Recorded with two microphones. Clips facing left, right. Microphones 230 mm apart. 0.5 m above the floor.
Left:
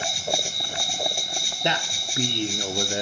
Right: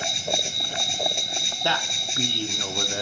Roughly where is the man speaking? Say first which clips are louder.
Left 2 dB; centre.